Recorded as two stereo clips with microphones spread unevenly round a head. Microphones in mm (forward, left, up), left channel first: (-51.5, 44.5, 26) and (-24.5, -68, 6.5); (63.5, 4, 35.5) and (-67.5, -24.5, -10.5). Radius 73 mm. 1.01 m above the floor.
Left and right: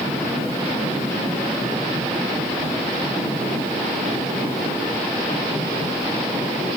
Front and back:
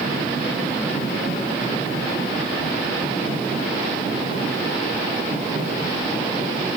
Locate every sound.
Only background noise.